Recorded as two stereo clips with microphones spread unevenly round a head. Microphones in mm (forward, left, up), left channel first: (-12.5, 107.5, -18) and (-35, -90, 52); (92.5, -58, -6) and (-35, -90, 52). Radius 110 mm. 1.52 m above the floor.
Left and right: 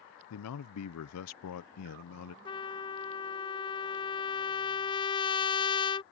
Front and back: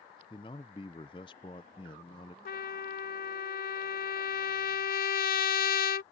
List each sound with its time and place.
0.3 s a man speaking: 85° left
2.5 s a trumpet: straight ahead